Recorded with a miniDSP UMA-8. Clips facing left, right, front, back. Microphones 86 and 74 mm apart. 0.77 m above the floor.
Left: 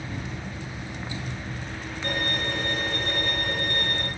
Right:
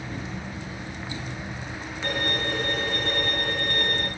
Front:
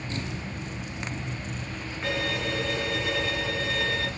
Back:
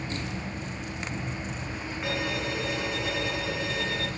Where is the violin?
55° right, 6.5 m.